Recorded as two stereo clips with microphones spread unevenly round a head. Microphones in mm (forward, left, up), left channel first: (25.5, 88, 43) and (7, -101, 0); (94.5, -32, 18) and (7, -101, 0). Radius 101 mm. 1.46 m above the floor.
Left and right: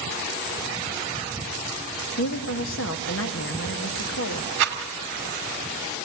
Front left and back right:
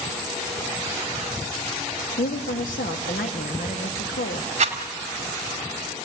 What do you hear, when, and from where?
2.2 s a woman speaking: 60° left, 1.2 m
4.6 s a rattle: 130° right, 3 m